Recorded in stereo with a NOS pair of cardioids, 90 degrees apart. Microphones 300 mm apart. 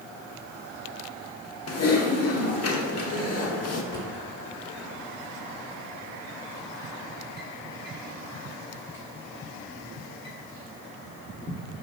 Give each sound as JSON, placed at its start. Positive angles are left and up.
{"t": 1.7, "sound": "typing on a keyboard", "azimuth_deg": 55, "distance_m": 1.4}
{"t": 3.9, "sound": "a drawer", "azimuth_deg": 35, "distance_m": 3.5}